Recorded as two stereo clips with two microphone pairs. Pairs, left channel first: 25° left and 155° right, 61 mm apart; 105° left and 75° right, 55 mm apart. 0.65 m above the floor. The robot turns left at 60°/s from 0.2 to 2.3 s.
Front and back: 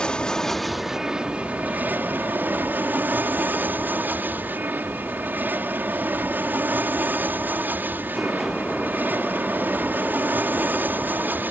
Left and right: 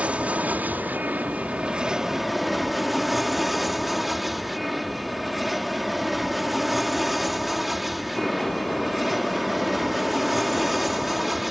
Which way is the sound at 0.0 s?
35° right.